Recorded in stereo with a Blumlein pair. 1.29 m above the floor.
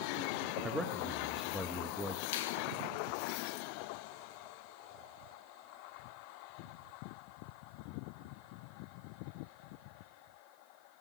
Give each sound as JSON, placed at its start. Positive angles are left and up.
{"t": 0.6, "sound": "a man speaking", "azimuth_deg": 0, "distance_m": 2.0}
{"t": 2.3, "sound": "a finger snap", "azimuth_deg": 55, "distance_m": 1.4}